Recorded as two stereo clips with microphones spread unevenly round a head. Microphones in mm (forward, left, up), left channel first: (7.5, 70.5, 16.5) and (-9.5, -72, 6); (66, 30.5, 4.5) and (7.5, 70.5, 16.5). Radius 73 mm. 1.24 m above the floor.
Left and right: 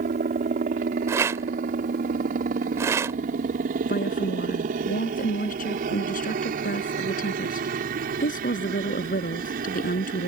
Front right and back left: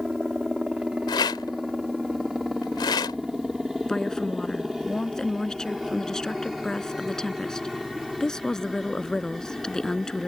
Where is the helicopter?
130° right; by 10.3 s 125° right.